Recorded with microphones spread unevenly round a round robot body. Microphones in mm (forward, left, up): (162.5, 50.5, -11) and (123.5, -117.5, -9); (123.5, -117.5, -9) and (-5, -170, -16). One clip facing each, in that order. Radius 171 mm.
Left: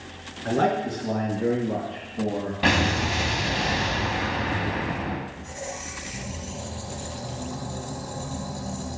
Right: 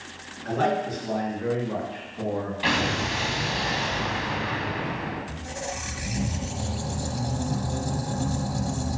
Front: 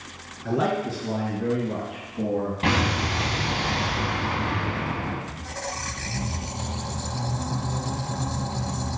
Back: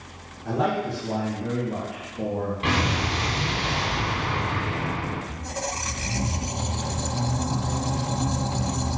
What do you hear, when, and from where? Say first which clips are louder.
0.5 s a man speaking: left 2 dB, front 1 dB; 50° left, 3.5 m; by 2.5 s 15° left, 3 m
2.6 s an explosion: left 6 dB, front 1 dB; 60° left, 2 m
5.3 s a squeak: right 2 dB, back 2 dB; 85° right, 1.1 m